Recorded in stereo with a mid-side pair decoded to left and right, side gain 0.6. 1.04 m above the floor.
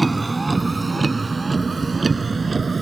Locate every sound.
0.0 s a vehicle: 15° right; by 2.8 s 25° right